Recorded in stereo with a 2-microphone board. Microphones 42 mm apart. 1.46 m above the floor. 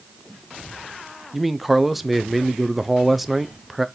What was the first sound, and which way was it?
A man speaking, centre (ahead or behind).